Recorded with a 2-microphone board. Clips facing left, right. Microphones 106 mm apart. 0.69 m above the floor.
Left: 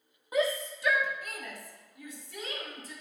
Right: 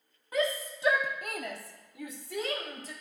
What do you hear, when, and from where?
0.3 s a shout: 15° left (ahead or behind), 0.9 m; by 2.9 s 80° right, 2.5 m